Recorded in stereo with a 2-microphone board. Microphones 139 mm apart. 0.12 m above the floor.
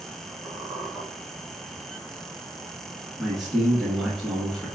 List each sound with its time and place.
0.5 s a squeak: 15° right (ahead or behind), 1.1 m
3.2 s a man speaking: centre (ahead or behind), 1.2 m